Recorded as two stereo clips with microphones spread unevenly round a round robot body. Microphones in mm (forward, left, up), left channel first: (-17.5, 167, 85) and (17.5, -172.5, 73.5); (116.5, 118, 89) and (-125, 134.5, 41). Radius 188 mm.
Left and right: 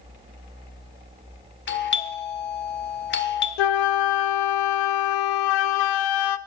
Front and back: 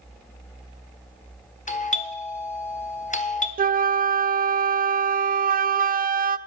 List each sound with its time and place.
1.7 s a doorbell: 55° left, 1.5 m
3.6 s a flute: 120° left, 0.6 m